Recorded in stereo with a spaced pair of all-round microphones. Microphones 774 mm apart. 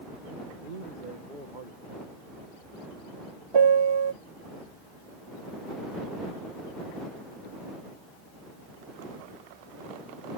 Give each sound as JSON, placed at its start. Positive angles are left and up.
{"t": 0.6, "sound": "a man speaking", "side_deg": -80}
{"t": 3.5, "sound": "a piano", "side_deg": -35}